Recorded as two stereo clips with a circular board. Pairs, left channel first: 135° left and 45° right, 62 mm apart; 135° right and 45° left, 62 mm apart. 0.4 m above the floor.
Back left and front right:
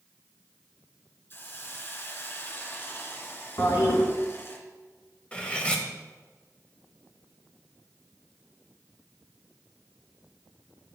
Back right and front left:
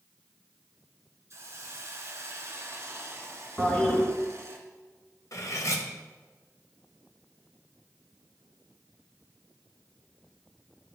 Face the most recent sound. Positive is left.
turn(degrees=-155)